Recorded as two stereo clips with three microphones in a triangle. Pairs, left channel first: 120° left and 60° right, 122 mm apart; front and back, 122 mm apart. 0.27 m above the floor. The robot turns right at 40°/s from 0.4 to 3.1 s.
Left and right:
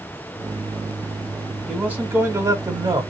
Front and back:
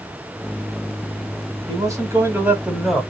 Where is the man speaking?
140° right, 1.6 m; by 3.0 s 85° right, 1.6 m.